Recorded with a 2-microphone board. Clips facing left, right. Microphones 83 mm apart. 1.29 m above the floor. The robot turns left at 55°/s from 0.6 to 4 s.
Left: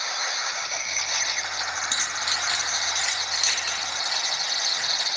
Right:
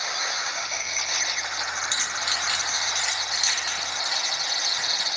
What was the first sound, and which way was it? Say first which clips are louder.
Keys jangling: even; 55° left (ahead or behind).